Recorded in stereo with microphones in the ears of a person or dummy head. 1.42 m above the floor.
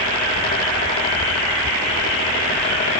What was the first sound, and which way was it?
Only background noise.